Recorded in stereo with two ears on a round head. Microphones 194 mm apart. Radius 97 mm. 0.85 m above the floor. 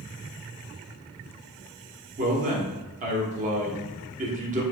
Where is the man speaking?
35° right (ahead or behind), 1.2 m.